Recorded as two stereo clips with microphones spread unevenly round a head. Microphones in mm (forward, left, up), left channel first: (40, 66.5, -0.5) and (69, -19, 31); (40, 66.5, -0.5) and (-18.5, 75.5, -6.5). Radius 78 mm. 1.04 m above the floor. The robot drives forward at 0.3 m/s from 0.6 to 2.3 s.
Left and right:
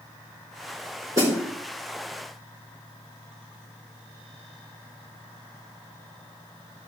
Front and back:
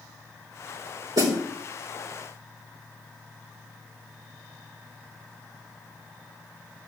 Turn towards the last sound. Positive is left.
turn(degrees=-145)